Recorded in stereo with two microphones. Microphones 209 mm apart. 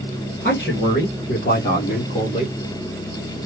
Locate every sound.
0.4 s a man speaking: 60° left (ahead or behind), 2.5 m; by 2.5 s 30° left (ahead or behind), 2.5 m